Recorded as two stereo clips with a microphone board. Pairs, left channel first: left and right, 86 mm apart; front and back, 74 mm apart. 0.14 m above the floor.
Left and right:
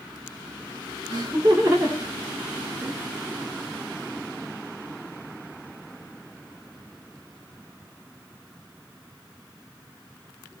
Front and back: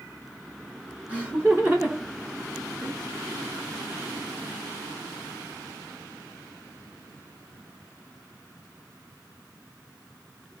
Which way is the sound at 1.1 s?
120° right.